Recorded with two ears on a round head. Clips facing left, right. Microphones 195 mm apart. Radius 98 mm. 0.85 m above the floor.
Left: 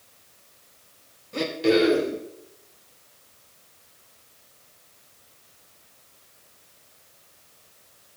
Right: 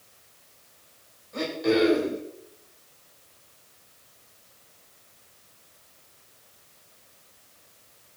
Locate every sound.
1.3 s throat clearing: 40° left (ahead or behind), 3.5 m